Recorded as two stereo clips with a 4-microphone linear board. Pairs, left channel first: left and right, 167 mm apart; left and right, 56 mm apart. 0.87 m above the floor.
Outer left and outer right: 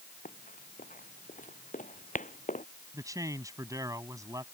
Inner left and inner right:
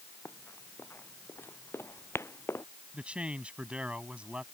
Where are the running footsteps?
55° left (ahead or behind); by 2.6 s 50° left (ahead or behind).